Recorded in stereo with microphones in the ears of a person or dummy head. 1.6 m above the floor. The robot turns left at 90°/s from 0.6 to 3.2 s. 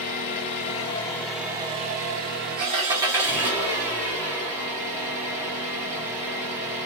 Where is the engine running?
65° left, 0.9 m; by 6.9 s 170° right, 0.9 m.